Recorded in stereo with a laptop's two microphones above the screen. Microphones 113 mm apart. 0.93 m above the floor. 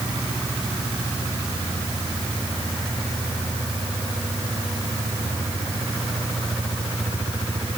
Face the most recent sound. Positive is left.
No sound to turn to.